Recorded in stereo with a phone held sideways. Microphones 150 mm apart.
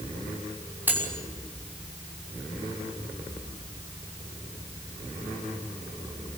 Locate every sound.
0.9 s cutlery clinking: 10° right (ahead or behind), 6 m